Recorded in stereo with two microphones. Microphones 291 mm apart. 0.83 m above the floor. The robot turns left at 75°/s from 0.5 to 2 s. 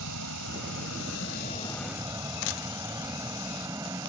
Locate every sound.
0.0 s an aircraft: 100° left; by 4.1 s 10° right